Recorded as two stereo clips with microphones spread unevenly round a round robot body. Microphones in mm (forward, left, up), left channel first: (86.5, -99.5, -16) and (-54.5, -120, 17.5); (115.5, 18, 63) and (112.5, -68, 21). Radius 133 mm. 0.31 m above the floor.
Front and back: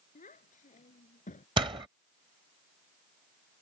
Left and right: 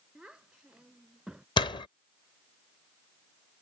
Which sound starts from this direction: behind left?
A door slam, at 1.6 s.